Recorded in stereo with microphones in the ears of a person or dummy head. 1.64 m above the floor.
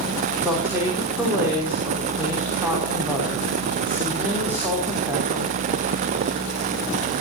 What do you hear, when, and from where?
0.4 s a woman speaking: 5° right (ahead or behind), 5.5 m